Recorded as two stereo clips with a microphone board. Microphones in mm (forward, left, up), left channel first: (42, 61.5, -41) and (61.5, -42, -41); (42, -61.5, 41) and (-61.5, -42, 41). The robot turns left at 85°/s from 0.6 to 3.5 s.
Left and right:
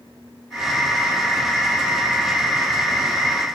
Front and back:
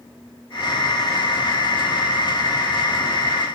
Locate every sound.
Only background noise.